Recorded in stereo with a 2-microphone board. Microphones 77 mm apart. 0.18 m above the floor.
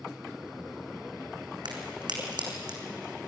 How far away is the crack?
About 3.5 m.